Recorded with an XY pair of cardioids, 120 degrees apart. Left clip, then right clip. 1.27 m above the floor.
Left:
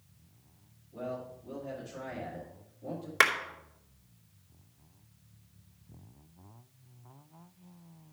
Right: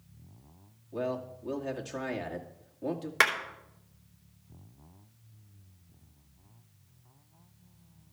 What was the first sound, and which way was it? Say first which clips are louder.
A man speaking: right 5 dB; 65° right.